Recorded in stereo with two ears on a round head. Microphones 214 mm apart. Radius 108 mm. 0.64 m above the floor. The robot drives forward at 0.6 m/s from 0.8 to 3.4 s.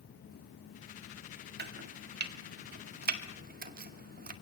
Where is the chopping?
45° right (ahead or behind), 1.7 m; by 4.3 s 40° right (ahead or behind), 1.8 m.